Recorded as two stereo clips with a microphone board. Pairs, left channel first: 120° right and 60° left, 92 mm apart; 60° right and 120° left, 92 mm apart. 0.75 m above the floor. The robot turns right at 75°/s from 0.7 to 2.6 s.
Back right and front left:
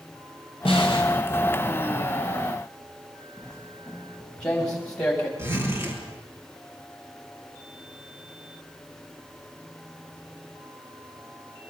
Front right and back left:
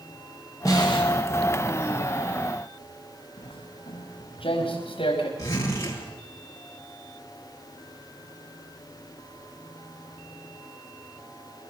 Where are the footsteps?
40° right, 4.5 m; by 5.3 s 35° right, 7 m.